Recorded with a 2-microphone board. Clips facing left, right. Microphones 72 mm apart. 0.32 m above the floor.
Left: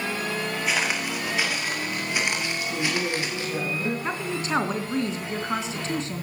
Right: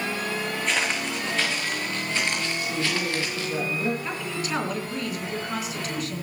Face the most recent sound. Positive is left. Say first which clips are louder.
# left 2 dB
turn(degrees=30)  # may be behind; listen again after turning